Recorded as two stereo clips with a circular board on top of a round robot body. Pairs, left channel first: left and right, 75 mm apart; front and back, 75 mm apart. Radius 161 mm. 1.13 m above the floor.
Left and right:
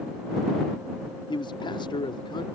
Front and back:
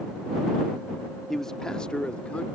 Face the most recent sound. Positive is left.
turn(degrees=75)